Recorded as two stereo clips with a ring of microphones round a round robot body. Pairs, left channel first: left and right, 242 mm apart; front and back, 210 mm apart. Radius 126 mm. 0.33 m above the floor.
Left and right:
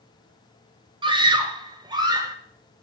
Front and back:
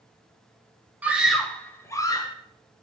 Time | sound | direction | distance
1.0 | a scream | 110° right | 1.5 m